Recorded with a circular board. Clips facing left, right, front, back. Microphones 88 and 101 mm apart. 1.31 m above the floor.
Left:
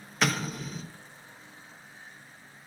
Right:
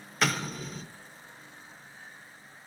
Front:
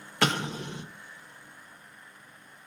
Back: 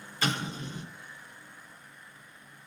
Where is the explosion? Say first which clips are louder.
Left 1 dB, front 4 dB; straight ahead, 0.6 m.